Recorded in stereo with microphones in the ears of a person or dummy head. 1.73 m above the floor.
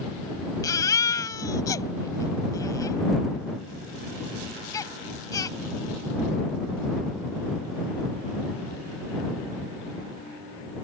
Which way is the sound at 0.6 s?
15° left (ahead or behind).